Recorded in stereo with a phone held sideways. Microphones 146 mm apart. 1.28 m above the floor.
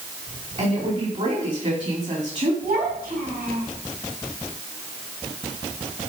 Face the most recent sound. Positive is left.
turn(degrees=-80)